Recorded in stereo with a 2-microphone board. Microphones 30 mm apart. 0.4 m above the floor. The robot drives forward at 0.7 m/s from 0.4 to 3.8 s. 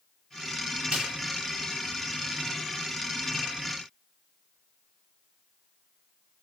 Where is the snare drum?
45° right (ahead or behind), 1.5 m; by 1.1 s 50° right (ahead or behind), 1.5 m.